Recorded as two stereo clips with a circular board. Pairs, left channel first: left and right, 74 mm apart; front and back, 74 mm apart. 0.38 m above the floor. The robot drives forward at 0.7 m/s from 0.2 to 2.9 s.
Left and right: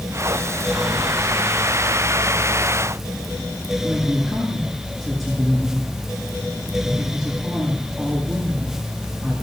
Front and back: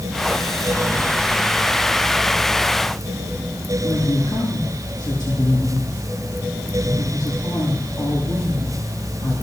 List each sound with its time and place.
3.8 s a woman speaking: 5° left, 6 m